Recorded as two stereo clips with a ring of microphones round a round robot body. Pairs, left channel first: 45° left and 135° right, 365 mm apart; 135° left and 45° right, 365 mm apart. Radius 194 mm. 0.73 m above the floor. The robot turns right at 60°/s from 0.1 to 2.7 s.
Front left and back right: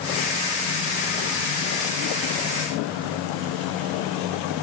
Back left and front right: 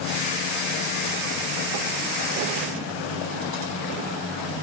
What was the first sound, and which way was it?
Only background noise.